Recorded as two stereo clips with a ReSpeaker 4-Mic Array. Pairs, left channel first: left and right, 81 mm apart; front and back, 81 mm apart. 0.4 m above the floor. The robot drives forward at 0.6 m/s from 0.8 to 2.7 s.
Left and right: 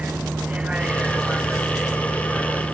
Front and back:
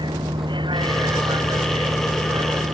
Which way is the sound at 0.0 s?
165° right.